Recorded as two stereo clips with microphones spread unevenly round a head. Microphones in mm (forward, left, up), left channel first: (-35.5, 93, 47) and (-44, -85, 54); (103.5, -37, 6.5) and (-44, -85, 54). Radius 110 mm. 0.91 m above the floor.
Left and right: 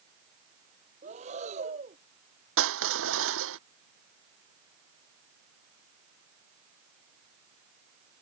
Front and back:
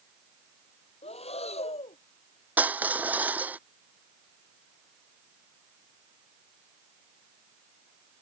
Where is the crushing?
85° right.